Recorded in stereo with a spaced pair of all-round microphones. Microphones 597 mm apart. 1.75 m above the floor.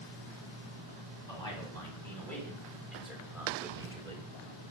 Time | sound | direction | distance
1.3 | a man speaking | 10° left (ahead or behind) | 5.5 m